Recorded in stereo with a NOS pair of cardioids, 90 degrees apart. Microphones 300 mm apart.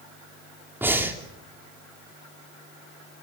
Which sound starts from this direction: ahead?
Breathing, at 0.8 s.